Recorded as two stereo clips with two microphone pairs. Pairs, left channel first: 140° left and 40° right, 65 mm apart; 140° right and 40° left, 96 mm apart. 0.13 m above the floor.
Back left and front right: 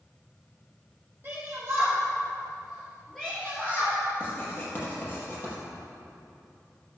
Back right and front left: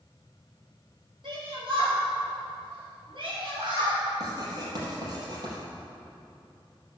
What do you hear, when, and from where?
1.2 s a shout: 10° left, 4 m; by 4.0 s 85° left, 2.5 m
4.2 s writing: 85° left, 4 m